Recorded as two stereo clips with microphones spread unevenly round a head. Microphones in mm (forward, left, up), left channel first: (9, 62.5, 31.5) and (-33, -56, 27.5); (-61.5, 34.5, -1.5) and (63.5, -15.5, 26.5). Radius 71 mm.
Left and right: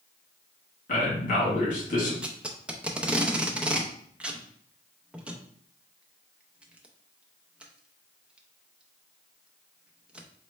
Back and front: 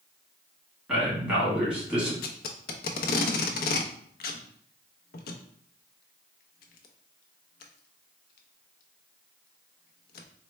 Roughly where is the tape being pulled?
Behind.